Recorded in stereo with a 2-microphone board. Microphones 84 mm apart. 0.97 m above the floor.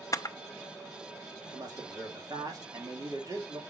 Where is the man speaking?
50° right (ahead or behind), 2.5 m.